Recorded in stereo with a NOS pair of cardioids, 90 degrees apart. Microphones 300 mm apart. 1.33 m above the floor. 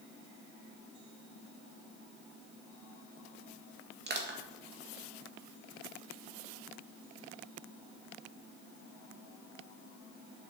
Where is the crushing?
35° right, 2.5 m.